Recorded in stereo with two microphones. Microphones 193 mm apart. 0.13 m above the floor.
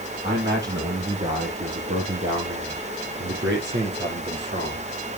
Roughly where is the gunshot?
No gunshot in this recording.